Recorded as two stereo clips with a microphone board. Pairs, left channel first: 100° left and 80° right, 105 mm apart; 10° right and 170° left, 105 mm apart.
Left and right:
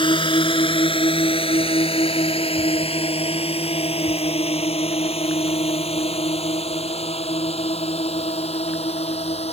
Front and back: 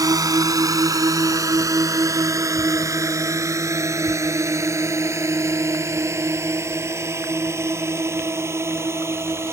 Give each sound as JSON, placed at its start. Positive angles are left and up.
{"t": 0.0, "sound": "a drone", "azimuth_deg": 120}